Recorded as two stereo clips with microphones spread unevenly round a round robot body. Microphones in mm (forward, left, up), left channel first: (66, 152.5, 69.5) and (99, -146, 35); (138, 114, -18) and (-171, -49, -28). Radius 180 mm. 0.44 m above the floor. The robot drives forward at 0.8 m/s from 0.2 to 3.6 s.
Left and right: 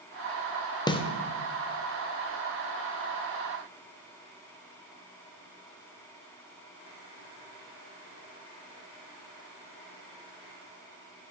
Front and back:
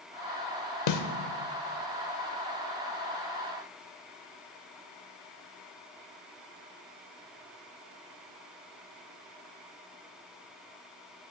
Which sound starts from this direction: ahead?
A snare drum, at 0.9 s.